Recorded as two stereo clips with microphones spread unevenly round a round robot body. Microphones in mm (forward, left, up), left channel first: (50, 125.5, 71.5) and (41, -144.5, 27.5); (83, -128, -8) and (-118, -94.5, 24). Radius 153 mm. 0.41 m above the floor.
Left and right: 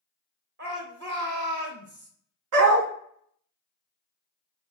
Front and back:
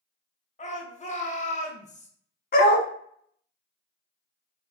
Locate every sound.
0.6 s a shout: 55° right, 1.5 m
2.5 s a dog barking: 55° right, 1.0 m